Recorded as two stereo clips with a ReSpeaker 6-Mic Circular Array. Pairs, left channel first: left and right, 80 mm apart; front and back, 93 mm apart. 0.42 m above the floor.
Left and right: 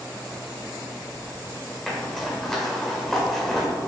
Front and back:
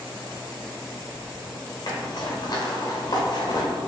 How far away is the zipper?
About 1.3 m.